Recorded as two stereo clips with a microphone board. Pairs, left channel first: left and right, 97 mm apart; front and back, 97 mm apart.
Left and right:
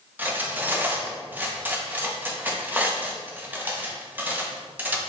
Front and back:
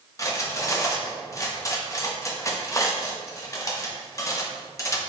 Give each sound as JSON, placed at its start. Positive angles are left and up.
{"t": 0.2, "sound": "cutlery clinking", "azimuth_deg": -30, "distance_m": 0.7}